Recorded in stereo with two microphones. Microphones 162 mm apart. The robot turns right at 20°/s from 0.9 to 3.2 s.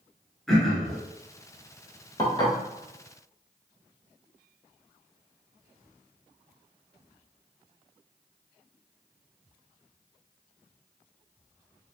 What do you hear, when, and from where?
0.5 s throat clearing: centre (ahead or behind), 1.1 m; by 1.0 s 5° left (ahead or behind), 1.1 m
2.2 s dishes clattering: 30° left (ahead or behind), 1.0 m; by 2.5 s 25° left (ahead or behind), 1.0 m